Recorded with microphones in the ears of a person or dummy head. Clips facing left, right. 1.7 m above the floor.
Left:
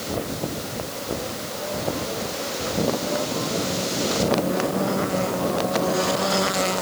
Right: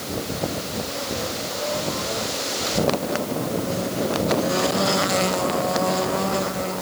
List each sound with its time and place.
Only background noise.